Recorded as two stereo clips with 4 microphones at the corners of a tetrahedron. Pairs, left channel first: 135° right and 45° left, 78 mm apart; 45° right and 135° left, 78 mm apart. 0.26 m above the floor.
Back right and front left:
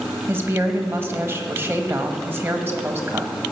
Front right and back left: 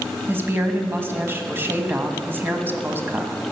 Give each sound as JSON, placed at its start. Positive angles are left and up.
{"t": 0.3, "sound": "a woman speaking", "azimuth_deg": 90, "distance_m": 1.2}